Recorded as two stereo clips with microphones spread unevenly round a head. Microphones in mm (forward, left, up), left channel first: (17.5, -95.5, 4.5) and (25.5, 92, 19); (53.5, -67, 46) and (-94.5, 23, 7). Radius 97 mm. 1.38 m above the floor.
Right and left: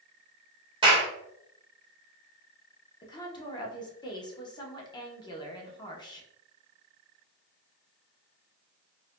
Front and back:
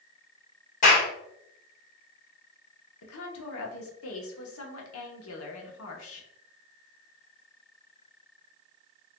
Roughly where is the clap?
Ahead.